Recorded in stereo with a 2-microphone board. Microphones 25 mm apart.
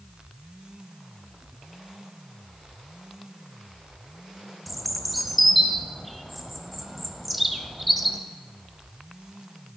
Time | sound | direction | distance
4.7 | a bird | centre (ahead or behind) | 0.5 m